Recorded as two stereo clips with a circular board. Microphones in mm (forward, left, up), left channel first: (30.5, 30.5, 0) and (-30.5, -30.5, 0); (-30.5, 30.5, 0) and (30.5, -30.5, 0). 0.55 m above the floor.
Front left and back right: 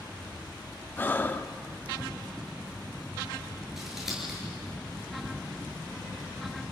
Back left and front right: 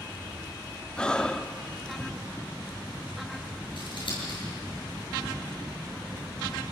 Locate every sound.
1.0 s breathing: 70° left, 0.6 m
3.8 s scissors: 140° left, 7 m